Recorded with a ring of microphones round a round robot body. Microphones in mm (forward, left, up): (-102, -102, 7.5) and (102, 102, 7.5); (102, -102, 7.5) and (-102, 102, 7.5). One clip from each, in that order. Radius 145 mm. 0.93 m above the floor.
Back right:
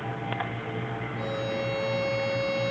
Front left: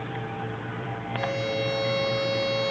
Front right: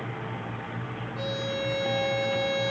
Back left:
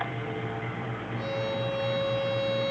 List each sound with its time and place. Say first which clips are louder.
1.2 s a violin: front left 4 dB, even; 10° left, 1.2 m